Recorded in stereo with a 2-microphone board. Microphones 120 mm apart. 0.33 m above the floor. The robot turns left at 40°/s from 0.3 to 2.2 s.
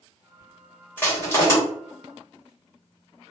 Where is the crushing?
15° left (ahead or behind), 1.6 m; by 1.6 s 25° left (ahead or behind), 1.6 m.